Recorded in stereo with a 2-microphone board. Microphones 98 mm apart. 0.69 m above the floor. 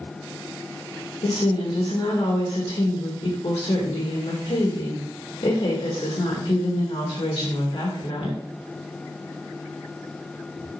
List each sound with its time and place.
1.2 s a woman speaking: 70° left (ahead or behind), 1.9 m